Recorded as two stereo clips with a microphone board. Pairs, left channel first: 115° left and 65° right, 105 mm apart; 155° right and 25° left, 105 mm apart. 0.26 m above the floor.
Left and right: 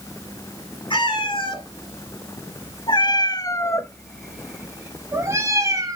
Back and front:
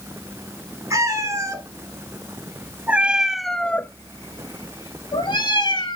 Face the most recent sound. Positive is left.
turn(degrees=-120)